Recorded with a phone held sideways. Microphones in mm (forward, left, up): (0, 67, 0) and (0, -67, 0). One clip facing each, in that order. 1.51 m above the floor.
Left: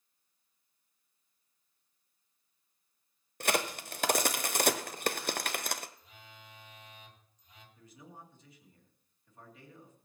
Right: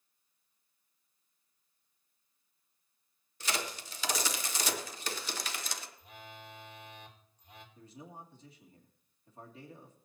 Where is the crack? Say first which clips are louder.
Left 6 dB; 55° left (ahead or behind), 0.8 m.